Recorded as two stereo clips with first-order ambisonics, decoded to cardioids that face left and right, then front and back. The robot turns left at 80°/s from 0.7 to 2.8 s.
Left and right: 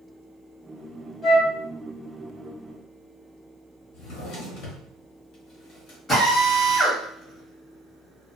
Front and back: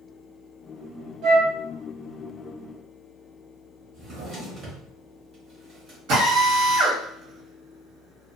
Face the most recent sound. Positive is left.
turn(degrees=165)